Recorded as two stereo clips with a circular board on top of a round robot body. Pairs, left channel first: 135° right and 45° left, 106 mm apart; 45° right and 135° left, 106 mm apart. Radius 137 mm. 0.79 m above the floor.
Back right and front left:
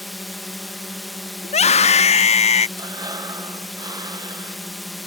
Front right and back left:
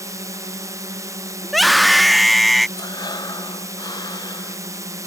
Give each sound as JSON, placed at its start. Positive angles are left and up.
{"t": 0.0, "sound": "a drone", "azimuth_deg": 135}
{"t": 1.4, "sound": "a scream", "azimuth_deg": -135}
{"t": 2.8, "sound": "breathing", "azimuth_deg": 0}